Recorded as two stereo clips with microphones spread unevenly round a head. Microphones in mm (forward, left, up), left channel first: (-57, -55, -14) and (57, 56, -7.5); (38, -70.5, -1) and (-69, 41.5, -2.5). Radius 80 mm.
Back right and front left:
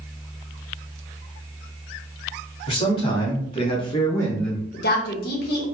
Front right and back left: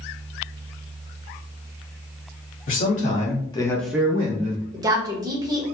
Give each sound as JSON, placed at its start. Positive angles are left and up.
{"t": 2.7, "sound": "a man speaking", "azimuth_deg": -75, "distance_m": 1.7}
{"t": 4.7, "sound": "a woman speaking", "azimuth_deg": -160, "distance_m": 0.9}